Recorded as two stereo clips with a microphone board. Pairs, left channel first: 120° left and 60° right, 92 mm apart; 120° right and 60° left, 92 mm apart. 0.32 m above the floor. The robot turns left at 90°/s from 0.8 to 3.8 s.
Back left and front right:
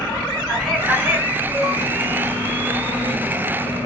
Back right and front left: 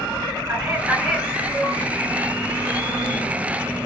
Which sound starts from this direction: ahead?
A man speaking, at 0.5 s.